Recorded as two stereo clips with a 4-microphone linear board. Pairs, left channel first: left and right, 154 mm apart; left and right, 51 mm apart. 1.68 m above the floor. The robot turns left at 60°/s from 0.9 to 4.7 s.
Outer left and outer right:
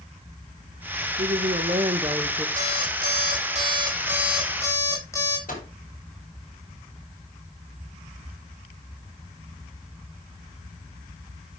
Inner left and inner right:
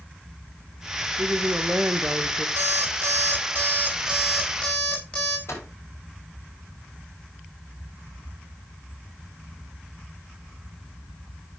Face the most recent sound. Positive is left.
turn(degrees=65)  # may be behind; listen again after turning